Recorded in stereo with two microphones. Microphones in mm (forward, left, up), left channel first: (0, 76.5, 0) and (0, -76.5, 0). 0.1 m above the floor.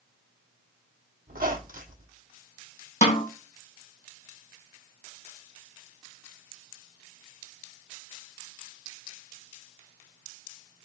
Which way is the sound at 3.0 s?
55° left (ahead or behind).